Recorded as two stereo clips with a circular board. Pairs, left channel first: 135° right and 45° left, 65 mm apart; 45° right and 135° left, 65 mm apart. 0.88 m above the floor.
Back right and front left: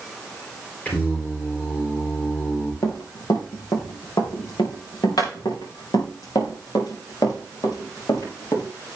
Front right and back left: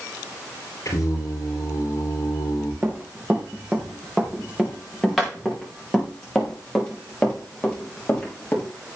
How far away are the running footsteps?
About 4 m.